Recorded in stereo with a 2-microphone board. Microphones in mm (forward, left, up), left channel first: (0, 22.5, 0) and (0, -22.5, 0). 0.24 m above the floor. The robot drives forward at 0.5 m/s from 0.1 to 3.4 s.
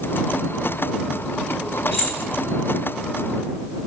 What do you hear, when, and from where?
1.9 s keys jangling: 10° right (ahead or behind), 1.6 m